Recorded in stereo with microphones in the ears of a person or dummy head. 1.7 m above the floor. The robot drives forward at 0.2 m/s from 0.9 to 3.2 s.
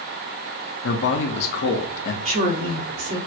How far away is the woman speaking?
About 0.7 m.